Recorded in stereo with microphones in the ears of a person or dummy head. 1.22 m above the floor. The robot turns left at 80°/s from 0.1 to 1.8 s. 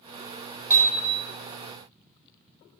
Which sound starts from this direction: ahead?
Hammering, at 0.7 s.